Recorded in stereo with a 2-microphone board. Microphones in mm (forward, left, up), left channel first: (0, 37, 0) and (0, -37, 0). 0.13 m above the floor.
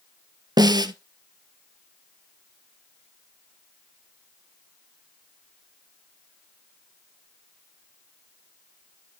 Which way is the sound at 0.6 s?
70° right (ahead or behind).